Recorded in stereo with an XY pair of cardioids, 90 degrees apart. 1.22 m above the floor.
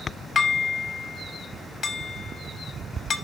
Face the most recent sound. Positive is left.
turn(degrees=60)